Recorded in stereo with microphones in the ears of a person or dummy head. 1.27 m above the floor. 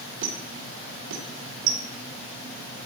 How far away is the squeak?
About 1.6 m.